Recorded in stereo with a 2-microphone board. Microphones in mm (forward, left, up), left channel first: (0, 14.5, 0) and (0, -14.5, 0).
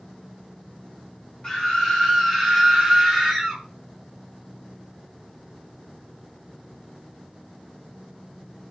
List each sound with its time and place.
1.4 s a scream: 30° left (ahead or behind), 1.4 m; by 3.6 s 20° right (ahead or behind), 1.3 m